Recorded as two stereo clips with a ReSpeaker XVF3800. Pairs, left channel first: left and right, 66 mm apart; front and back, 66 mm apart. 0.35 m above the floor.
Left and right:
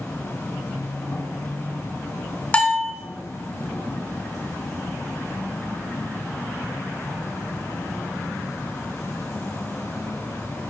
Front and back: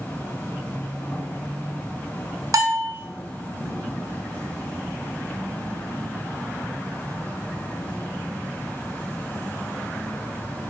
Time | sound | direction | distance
0.0 | an insect | 50° left | 3.5 m
2.5 | a bell | 160° left | 1.2 m